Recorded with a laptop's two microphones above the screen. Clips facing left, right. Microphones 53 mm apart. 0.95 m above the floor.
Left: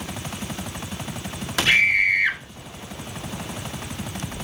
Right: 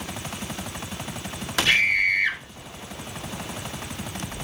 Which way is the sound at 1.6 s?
15° left (ahead or behind).